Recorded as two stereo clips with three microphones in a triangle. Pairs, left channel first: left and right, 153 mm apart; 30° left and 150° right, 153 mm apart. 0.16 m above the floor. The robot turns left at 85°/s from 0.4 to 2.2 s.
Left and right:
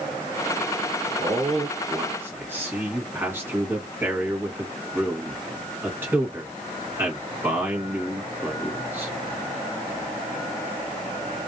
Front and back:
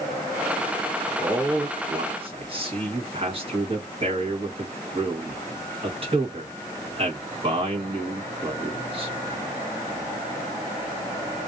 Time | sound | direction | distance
1.2 | a man speaking | 70° right | 1.4 m